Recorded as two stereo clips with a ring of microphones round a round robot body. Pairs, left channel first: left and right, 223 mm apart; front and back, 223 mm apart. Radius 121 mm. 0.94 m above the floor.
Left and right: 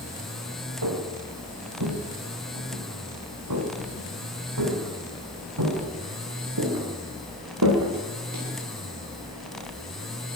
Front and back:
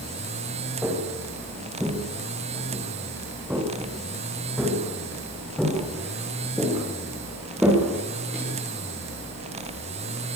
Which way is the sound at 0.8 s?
95° right.